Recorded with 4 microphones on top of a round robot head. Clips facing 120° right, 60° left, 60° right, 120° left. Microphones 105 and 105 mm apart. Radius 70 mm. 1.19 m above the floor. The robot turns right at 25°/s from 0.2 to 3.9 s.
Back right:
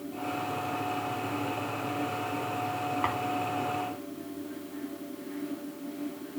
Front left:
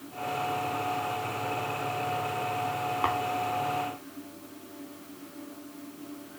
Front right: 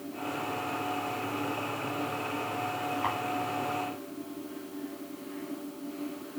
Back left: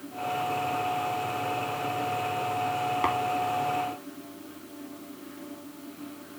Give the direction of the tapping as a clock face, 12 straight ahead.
8 o'clock.